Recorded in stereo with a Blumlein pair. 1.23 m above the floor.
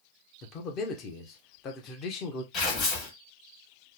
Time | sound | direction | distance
0.4 | a man speaking | 30° left | 1.0 m
2.5 | tearing paper | 30° left | 1.6 m